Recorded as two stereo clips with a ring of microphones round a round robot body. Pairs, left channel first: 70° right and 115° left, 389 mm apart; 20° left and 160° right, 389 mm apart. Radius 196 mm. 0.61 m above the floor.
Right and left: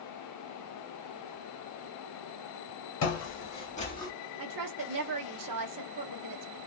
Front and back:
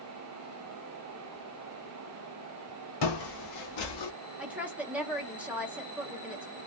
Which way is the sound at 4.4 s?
115° left.